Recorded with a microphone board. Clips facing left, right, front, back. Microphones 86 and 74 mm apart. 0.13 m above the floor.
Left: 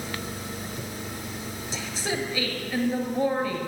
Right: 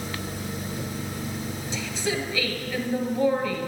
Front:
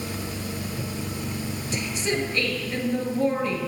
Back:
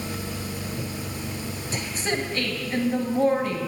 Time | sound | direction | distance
1.7 | a woman speaking | 135° left | 1.9 m